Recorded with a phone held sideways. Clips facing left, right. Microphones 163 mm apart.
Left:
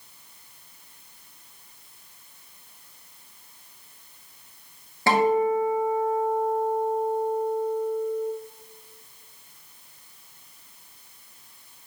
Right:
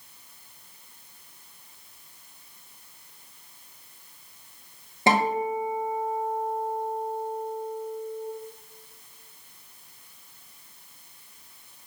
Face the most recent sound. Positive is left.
turn(degrees=-20)  # may be behind; listen again after turning